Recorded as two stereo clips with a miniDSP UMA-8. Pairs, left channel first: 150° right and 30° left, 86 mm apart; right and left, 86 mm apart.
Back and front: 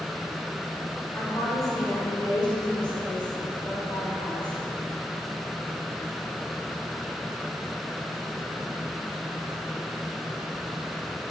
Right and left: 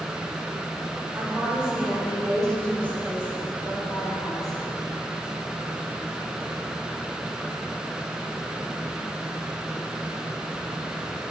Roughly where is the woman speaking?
Behind left.